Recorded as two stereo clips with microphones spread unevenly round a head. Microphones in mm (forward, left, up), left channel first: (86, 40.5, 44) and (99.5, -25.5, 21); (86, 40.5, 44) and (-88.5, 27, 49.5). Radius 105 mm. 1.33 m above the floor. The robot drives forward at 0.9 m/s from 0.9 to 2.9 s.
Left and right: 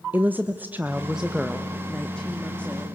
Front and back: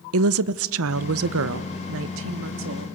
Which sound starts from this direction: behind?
A woman speaking, at 0.1 s.